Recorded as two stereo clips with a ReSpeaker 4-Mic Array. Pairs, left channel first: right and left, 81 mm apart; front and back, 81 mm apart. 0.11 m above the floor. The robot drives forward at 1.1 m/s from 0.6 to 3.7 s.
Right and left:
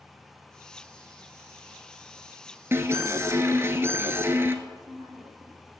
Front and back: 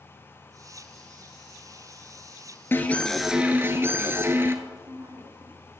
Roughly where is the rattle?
I don't hear a rattle.